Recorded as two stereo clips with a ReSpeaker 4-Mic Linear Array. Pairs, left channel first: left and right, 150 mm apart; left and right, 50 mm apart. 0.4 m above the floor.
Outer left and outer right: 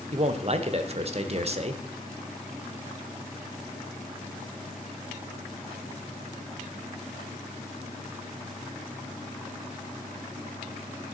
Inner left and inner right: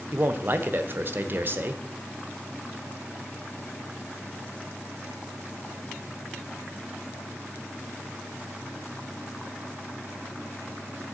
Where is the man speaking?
45° right (ahead or behind), 1.0 m.